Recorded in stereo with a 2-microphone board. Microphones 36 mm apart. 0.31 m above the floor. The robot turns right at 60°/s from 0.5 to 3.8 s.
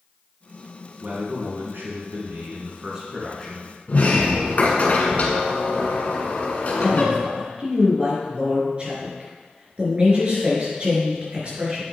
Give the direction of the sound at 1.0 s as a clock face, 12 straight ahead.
5 o'clock.